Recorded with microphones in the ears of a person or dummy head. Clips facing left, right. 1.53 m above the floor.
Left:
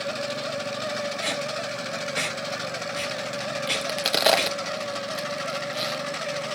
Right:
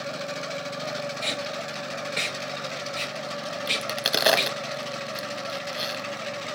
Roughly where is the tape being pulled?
Centre.